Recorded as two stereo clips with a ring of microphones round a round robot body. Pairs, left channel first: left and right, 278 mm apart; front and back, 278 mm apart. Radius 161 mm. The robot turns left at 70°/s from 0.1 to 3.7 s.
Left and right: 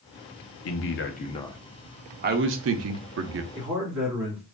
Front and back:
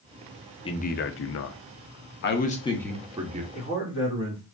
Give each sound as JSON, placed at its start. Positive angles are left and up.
{"t": 0.7, "sound": "a man speaking", "azimuth_deg": 70, "distance_m": 0.6}
{"t": 3.5, "sound": "a man speaking", "azimuth_deg": -35, "distance_m": 1.8}